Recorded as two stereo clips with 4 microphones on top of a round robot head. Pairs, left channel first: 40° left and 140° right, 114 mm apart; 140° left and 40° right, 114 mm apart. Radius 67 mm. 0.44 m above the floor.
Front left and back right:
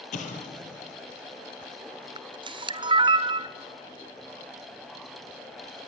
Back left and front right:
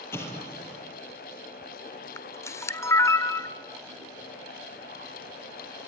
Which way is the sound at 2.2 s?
165° right.